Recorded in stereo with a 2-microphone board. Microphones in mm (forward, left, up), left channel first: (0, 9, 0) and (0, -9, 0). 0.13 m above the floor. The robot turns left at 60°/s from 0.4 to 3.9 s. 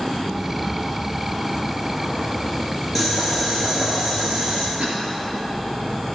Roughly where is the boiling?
Ahead.